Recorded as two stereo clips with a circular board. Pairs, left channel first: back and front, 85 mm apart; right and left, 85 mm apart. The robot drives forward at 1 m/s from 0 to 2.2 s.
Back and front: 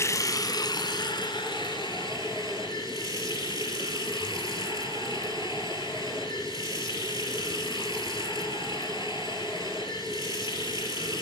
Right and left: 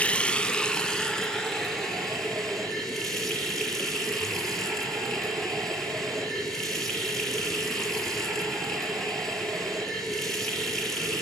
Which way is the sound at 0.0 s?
155° right.